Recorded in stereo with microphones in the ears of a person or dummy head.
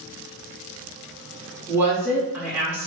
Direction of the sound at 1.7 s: 10° right (ahead or behind).